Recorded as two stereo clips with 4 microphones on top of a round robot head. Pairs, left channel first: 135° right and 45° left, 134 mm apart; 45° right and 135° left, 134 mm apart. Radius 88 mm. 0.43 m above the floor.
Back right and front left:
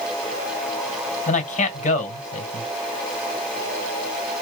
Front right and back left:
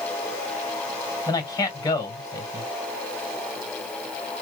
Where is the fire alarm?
No fire alarm in this recording.